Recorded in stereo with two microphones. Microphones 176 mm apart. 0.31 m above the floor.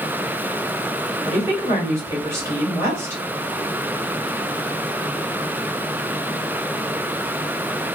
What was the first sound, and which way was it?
A woman speaking, 15° right (ahead or behind).